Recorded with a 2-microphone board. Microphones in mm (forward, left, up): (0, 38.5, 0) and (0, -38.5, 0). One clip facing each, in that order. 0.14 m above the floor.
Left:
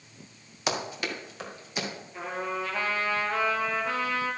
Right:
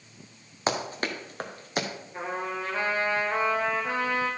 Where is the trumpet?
30° right (ahead or behind), 3.5 m.